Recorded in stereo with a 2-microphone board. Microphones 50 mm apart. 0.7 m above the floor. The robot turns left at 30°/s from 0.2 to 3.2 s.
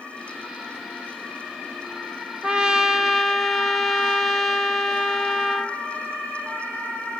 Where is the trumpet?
20° right (ahead or behind), 0.8 m; by 5.8 s centre (ahead or behind), 0.8 m.